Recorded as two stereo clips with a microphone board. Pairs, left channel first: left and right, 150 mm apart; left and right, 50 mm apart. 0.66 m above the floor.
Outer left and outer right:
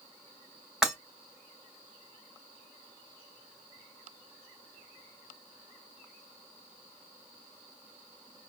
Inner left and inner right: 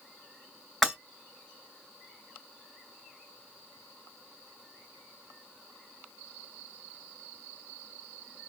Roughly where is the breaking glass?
Centre.